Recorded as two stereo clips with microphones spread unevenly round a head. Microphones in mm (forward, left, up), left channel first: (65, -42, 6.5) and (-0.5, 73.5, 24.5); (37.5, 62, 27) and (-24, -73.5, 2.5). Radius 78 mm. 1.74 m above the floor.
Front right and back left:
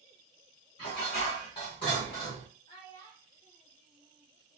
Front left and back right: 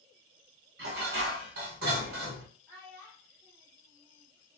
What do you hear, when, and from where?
0.8 s dishes clattering: 115° right, 1.1 m
2.7 s a child speaking: 15° right, 1.7 m